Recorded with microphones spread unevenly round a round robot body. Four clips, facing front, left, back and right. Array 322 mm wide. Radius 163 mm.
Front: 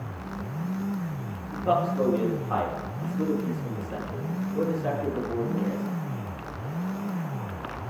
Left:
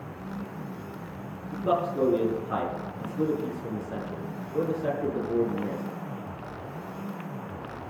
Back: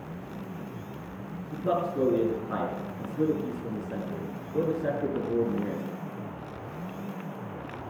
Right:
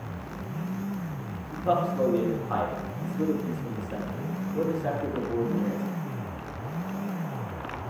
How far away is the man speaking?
About 5 m.